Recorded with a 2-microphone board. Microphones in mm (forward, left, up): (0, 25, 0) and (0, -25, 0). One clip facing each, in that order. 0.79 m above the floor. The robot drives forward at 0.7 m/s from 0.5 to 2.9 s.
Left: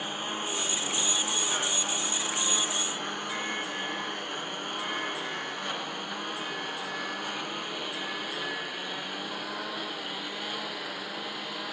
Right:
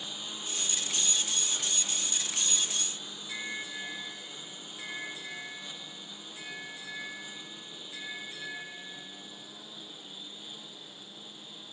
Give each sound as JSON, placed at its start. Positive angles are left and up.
{"t": 0.0, "sound": "a lawn mower", "side_deg": 50}